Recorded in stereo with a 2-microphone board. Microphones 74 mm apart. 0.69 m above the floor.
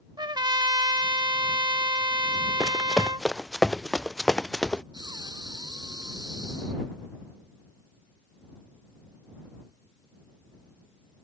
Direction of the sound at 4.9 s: 75° right (ahead or behind).